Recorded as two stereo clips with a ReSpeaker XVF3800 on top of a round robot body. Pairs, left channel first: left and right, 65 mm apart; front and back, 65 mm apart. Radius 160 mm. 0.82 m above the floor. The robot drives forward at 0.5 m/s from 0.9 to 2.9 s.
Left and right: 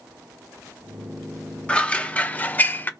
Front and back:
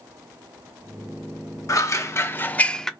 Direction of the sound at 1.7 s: 20° left.